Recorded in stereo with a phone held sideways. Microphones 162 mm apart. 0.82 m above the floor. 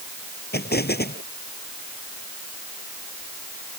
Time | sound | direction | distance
0.5 | an explosion | 90° left | ?